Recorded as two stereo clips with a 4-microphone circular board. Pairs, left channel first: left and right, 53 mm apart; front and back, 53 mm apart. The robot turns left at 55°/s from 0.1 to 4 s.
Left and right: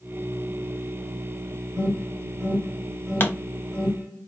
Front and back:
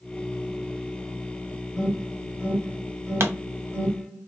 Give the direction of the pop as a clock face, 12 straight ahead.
7 o'clock.